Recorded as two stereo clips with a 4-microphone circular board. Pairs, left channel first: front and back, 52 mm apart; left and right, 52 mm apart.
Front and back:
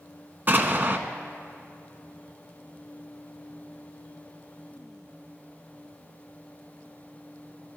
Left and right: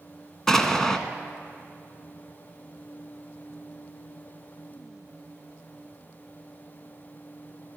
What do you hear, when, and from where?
0.5 s an explosion: 165° left, 0.9 m